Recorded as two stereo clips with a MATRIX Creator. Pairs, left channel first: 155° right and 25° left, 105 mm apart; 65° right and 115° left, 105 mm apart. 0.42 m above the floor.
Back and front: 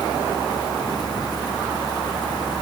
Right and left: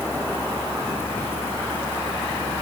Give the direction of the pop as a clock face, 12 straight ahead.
No pop in this recording.